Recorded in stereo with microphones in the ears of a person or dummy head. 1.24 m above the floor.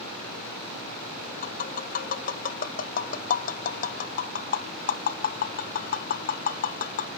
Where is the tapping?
35° left (ahead or behind), 0.6 m.